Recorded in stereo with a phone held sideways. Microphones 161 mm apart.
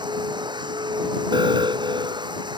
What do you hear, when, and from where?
0.0 s a machine running: 25° right (ahead or behind)
1.3 s an alarm: 30° right (ahead or behind)